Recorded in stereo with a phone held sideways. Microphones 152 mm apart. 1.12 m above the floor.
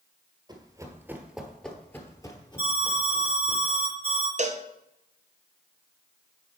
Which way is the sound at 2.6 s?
65° right (ahead or behind).